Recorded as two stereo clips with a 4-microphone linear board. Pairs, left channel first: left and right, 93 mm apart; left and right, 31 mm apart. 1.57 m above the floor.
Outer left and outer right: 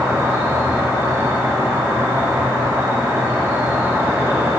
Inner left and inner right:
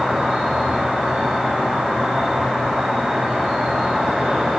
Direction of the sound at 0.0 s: 30° right (ahead or behind).